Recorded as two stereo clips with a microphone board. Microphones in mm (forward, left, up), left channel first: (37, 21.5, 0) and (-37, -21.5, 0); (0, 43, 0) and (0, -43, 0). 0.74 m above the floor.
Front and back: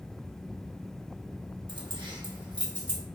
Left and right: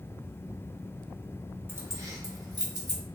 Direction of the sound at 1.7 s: 150° right.